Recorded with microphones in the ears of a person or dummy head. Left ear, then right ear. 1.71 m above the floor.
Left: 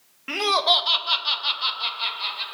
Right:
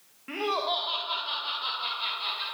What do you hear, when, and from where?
0.3 s laughter: 75° left (ahead or behind), 1.7 m; by 2.5 s 15° left (ahead or behind), 3 m